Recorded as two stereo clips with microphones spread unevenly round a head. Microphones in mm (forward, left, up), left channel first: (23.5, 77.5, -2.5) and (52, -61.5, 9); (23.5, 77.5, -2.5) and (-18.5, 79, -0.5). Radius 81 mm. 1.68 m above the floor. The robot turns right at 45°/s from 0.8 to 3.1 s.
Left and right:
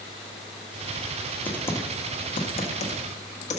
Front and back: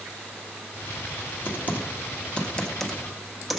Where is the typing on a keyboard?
20° left, 1.3 m; by 3.6 s 95° left, 1.3 m.